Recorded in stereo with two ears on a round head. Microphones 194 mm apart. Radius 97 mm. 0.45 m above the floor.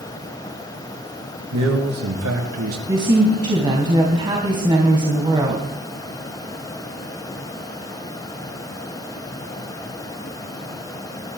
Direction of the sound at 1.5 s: 80° right.